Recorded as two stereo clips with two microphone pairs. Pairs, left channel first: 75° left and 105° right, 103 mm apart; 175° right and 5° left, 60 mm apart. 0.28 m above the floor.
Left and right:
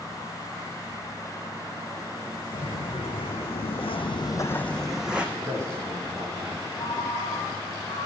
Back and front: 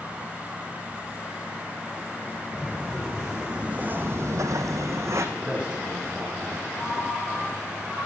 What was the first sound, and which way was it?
Footsteps, 100° left.